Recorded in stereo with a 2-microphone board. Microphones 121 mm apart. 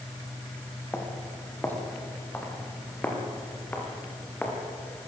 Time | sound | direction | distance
0.9 | footsteps | 15° left (ahead or behind) | 4.5 m